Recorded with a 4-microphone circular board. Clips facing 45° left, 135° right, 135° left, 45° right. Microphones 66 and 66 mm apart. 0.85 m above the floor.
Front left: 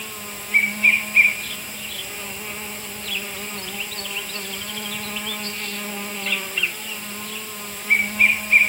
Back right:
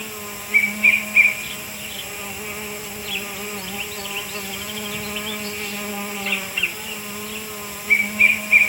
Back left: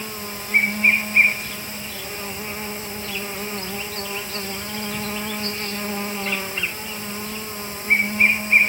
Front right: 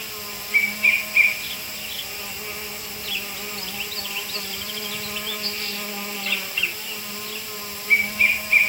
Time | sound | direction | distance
0.0 | an insect | 150° left | 0.9 m